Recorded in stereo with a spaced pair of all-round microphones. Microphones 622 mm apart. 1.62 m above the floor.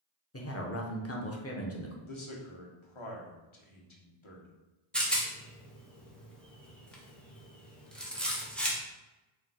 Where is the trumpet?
No trumpet in this recording.